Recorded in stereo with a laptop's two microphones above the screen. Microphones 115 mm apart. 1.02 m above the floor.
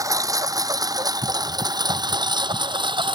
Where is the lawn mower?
30° right (ahead or behind); by 3.2 s 45° right (ahead or behind).